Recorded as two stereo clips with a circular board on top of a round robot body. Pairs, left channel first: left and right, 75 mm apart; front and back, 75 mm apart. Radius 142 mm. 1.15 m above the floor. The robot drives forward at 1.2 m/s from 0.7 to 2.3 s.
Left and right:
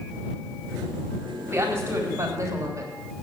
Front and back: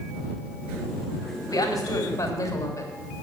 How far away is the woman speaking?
About 4 m.